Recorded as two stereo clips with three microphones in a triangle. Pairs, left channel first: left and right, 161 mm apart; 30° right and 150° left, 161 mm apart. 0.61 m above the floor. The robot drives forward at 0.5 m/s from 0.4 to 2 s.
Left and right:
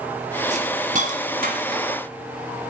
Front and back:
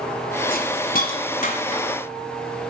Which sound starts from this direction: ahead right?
A hiss, at 0.5 s.